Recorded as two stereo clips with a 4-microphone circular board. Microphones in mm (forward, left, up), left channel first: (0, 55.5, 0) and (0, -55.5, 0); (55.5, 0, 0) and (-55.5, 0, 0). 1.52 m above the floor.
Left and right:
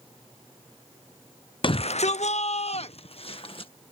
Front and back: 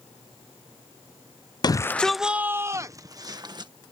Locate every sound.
1.6 s a shout: 50° left; by 3.7 s 130° left